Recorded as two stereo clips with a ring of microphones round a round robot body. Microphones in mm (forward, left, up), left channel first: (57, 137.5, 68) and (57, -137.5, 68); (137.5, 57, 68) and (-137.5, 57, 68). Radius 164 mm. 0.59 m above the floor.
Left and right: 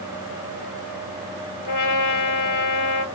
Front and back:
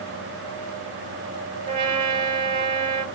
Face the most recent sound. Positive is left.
turn(degrees=120)